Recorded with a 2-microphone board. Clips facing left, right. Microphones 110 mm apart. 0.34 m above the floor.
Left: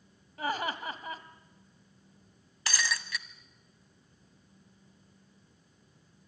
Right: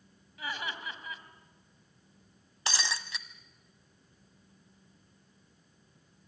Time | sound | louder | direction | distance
0.4 | laughter | left 6 dB | 45° left (ahead or behind) | 1.7 m
2.7 | breaking glass | left 1 dB | 25° right (ahead or behind) | 1.2 m